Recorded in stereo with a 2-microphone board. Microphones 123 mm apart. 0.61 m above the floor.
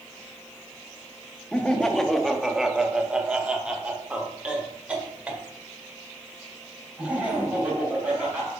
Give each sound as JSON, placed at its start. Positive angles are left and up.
{"t": 1.5, "sound": "laughter", "side_deg": 5, "distance_m": 0.7}